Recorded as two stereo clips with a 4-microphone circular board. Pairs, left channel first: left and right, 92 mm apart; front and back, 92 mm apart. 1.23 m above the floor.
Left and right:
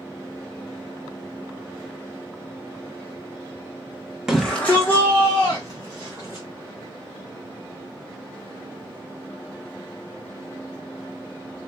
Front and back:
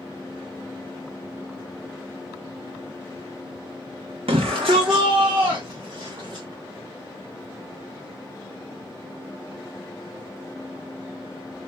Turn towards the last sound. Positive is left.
turn(degrees=140)